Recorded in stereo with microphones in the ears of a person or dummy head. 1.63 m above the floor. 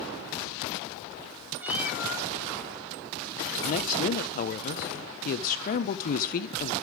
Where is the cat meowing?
5° right (ahead or behind), 1.8 m.